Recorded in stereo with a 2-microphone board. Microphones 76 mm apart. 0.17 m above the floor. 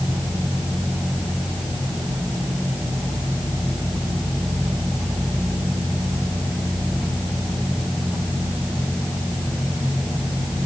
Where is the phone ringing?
No phone ringing in this recording.